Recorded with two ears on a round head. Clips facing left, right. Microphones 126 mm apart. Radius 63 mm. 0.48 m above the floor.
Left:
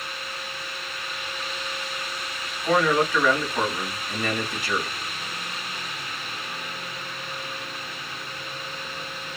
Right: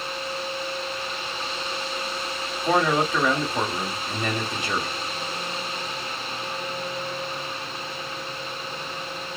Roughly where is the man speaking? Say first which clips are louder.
Left 1 dB; centre.